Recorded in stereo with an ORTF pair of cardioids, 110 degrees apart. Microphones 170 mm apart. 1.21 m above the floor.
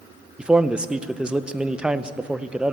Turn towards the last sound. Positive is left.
turn(degrees=-5)